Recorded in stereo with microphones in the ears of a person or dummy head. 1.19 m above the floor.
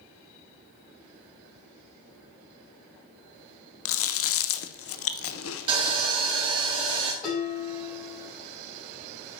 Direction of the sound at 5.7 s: 25° right (ahead or behind).